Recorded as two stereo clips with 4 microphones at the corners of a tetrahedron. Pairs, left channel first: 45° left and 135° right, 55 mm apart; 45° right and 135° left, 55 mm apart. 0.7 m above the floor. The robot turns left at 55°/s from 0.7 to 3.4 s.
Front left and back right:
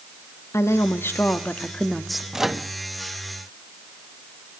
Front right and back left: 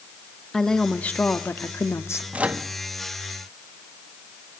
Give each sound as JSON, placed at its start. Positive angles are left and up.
{"t": 0.5, "sound": "a woman speaking", "azimuth_deg": 30, "distance_m": 1.0}
{"t": 2.3, "sound": "a microwave", "azimuth_deg": 155, "distance_m": 0.7}